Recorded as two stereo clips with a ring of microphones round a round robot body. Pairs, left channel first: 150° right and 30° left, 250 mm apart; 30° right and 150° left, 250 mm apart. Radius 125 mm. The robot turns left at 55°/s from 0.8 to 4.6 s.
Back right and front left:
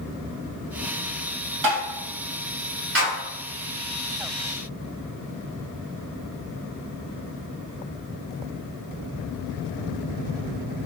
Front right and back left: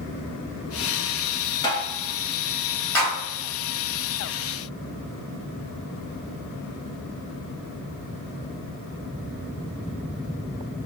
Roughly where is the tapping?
Ahead left.